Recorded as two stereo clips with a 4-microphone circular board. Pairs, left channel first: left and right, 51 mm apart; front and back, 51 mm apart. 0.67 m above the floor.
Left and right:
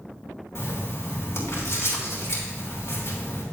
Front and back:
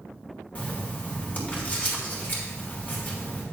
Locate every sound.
0.6 s writing: 55° left, 3 m